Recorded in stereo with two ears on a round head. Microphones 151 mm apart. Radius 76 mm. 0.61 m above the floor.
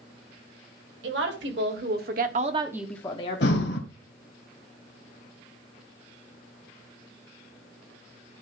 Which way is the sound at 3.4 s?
65° left (ahead or behind).